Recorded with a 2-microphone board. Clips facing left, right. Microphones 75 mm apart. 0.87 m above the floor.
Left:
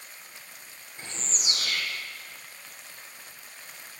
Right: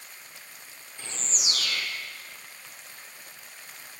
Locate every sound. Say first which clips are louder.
1.0 s a bird: even; 40° left (ahead or behind), 8.5 m